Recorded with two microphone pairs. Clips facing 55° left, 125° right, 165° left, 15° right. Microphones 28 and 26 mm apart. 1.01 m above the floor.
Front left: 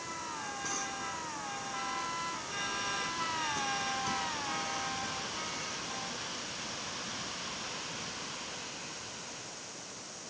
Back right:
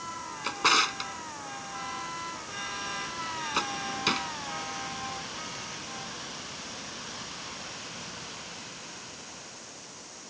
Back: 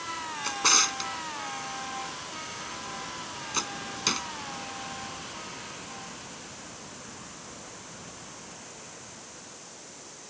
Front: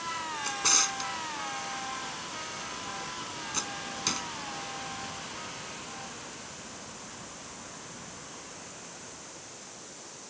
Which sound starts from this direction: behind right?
A drawer, at 0.4 s.